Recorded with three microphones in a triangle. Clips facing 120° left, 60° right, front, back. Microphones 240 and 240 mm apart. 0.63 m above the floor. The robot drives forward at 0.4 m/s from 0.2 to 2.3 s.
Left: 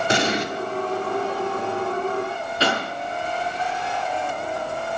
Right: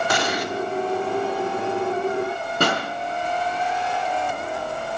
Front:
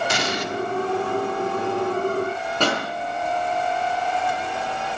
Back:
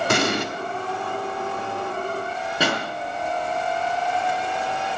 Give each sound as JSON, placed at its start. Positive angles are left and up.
{"t": 0.1, "sound": "an explosion", "azimuth_deg": 175, "distance_m": 1.2}
{"t": 2.6, "sound": "a pop", "azimuth_deg": -100, "distance_m": 5.5}